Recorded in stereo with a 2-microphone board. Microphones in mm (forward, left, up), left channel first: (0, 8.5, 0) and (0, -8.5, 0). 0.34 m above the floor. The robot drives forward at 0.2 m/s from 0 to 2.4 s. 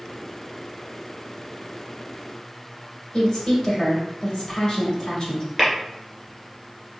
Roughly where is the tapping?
Centre.